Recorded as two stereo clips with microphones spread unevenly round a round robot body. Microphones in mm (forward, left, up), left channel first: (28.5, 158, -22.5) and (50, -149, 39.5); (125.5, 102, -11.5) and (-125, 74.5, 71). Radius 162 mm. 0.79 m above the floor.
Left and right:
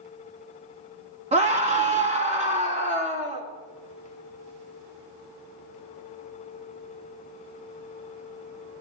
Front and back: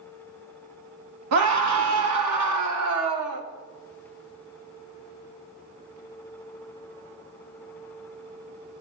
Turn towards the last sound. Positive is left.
turn(degrees=-160)